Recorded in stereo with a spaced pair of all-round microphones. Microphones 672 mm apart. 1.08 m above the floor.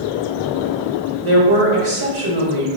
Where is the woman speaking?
45° right (ahead or behind), 1.3 m.